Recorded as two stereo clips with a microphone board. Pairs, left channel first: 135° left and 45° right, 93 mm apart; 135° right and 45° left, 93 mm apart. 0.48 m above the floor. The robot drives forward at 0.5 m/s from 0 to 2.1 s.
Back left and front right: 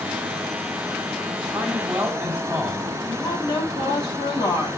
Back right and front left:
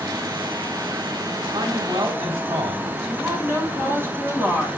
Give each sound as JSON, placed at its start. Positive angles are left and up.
{"t": 1.5, "sound": "a man speaking", "azimuth_deg": 25, "distance_m": 3.5}
{"t": 3.1, "sound": "a woman speaking", "azimuth_deg": 105, "distance_m": 3.5}